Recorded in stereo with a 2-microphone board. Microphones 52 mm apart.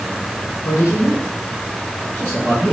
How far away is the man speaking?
About 1.1 m.